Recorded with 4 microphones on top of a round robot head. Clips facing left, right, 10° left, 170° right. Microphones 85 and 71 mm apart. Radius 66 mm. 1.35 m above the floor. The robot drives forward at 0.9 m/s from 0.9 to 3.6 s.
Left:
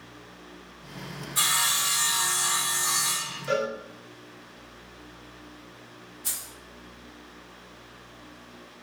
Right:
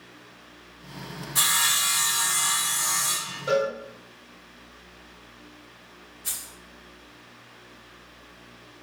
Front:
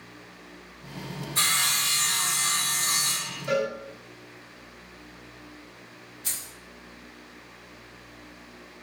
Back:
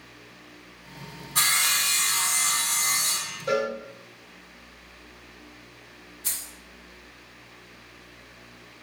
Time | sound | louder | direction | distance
1.4 | sawing | right 1 dB, back 2 dB | 120° right | 1.7 m
3.5 | a cowbell | right 3 dB, back 1 dB | 130° right | 2.5 m
6.2 | keys jangling | right 1 dB, even | 135° left | 1.5 m